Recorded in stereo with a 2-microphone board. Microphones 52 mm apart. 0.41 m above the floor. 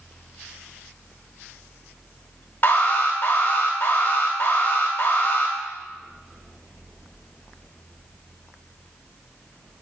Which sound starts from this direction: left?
An alarm, at 2.6 s.